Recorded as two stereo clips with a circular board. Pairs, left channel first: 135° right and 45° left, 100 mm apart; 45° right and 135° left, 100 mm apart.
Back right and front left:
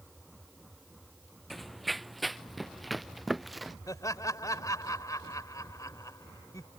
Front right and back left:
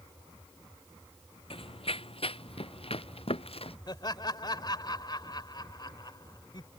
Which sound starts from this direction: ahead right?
Running footsteps, at 1.5 s.